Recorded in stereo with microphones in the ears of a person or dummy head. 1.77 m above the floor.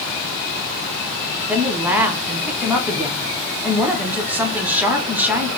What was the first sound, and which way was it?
A woman speaking, 10° right (ahead or behind).